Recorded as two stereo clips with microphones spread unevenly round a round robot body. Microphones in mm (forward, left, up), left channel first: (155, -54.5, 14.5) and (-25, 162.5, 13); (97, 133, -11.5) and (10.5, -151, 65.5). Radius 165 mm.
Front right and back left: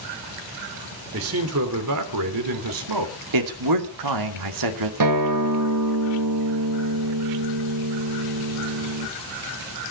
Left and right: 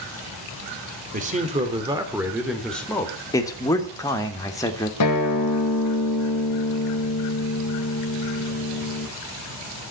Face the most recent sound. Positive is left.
turn(degrees=115)